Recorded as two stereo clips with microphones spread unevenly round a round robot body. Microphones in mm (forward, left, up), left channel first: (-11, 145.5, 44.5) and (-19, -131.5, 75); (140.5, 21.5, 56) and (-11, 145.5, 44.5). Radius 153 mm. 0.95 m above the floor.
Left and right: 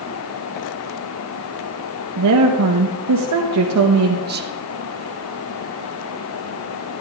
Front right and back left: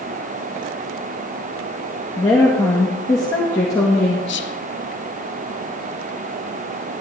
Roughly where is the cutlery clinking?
No cutlery clinking in this recording.